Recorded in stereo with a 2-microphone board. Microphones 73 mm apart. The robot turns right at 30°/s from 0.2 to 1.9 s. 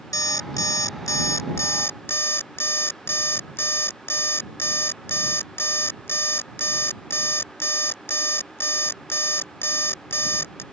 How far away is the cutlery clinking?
I don't hear cutlery clinking.